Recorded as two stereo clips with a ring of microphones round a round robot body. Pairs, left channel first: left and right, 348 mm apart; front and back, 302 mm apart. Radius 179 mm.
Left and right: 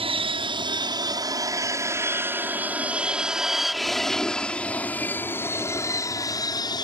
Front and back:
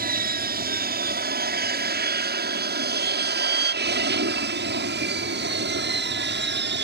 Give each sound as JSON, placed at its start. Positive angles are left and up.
{"t": 0.0, "sound": "an aircraft", "azimuth_deg": -150}